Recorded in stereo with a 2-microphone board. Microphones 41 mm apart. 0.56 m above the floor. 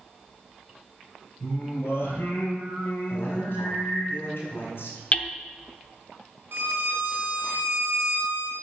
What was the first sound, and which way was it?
Singing, 70° left (ahead or behind).